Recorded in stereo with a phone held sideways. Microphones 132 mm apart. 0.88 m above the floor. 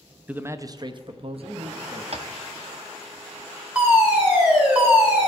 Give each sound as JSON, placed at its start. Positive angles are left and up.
{"t": 0.3, "sound": "a man speaking", "side_deg": -10, "distance_m": 0.5}
{"t": 2.1, "sound": "tapping", "side_deg": -55, "distance_m": 0.8}
{"t": 3.8, "sound": "a fire alarm", "side_deg": -15, "distance_m": 3.5}